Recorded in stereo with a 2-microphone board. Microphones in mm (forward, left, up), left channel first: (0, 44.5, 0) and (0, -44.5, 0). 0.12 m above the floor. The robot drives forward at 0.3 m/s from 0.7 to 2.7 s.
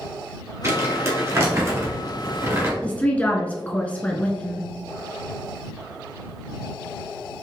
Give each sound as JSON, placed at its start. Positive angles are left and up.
{"t": 0.6, "sound": "crumpling", "side_deg": -35, "distance_m": 1.5}
{"t": 2.8, "sound": "a woman speaking", "side_deg": 15, "distance_m": 1.1}